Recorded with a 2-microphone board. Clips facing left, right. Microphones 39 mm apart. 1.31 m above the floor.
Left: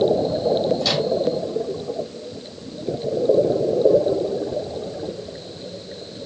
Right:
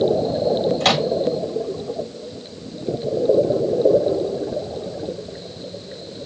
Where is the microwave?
65° right (ahead or behind), 1.7 m.